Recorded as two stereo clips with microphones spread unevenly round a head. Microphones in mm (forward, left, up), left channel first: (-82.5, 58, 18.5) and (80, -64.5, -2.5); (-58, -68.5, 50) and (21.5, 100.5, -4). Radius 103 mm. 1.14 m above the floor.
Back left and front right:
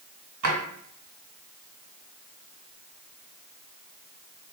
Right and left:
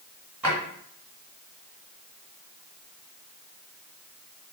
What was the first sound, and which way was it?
A drawer, 30° right.